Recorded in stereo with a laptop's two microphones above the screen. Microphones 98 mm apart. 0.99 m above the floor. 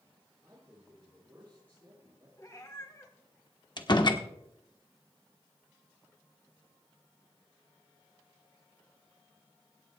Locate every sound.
0.4 s a man speaking: 20° right (ahead or behind), 8 m
2.4 s a cat meowing: 35° left (ahead or behind), 1.7 m
3.8 s a door slam: 45° left (ahead or behind), 1.3 m